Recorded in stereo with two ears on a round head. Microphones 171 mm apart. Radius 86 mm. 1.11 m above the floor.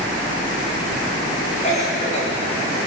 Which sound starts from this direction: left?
A cough, at 1.6 s.